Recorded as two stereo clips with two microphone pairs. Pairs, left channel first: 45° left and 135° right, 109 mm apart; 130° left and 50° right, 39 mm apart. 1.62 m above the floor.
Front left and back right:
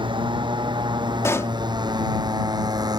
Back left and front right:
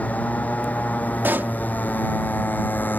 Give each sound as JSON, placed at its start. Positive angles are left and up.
{"t": 0.0, "sound": "a motorcycle", "azimuth_deg": 180}
{"t": 1.2, "sound": "a pop", "azimuth_deg": -20}